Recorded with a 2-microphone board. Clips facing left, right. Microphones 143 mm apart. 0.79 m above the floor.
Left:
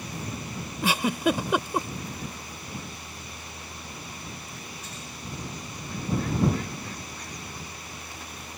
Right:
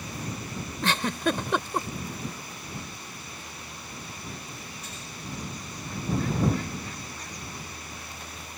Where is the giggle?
10° left (ahead or behind).